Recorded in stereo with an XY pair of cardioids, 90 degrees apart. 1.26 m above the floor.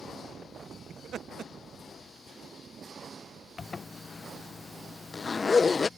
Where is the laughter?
70° right.